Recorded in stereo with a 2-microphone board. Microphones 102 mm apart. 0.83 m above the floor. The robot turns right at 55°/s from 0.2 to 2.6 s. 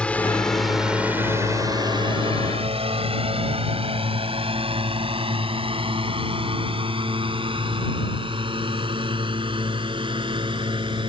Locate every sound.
0.0 s a drone: 10° left (ahead or behind); by 11.1 s 55° right (ahead or behind)